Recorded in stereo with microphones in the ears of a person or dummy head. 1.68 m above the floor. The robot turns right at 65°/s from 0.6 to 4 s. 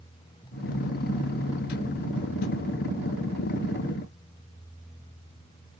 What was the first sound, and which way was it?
Only background noise.